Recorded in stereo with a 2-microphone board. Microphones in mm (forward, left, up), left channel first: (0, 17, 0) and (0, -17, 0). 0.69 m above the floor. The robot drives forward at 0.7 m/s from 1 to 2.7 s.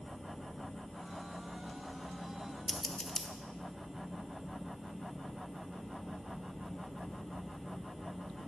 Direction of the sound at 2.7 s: 15° left (ahead or behind).